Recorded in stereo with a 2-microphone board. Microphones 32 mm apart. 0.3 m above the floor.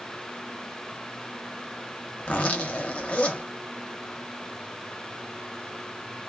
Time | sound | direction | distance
2.2 | a zipper | 45° left (ahead or behind) | 0.8 m